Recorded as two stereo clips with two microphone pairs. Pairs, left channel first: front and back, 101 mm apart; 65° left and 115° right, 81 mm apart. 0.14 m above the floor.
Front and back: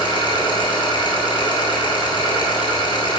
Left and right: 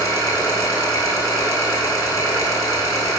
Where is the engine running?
25° left, 0.9 m.